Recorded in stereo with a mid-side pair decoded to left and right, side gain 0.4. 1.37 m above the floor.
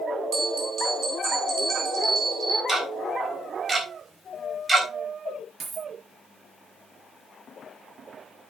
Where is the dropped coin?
60° right, 4 m.